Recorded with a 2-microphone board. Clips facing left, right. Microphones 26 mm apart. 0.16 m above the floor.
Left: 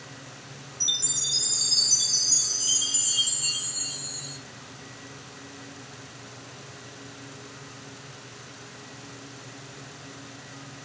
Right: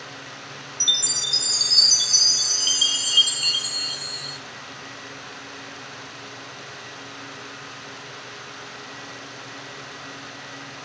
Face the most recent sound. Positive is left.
turn(degrees=-70)  # may be behind; listen again after turning